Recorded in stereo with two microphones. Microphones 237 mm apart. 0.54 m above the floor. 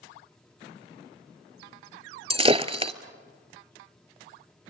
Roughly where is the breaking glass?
Right.